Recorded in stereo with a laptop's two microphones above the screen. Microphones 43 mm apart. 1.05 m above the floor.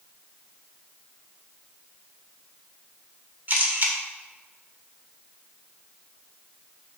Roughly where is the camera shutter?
Right.